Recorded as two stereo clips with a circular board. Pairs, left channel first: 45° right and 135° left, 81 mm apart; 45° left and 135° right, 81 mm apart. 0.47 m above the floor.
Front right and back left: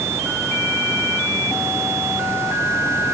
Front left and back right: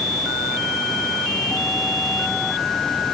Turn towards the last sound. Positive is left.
No sound to turn to.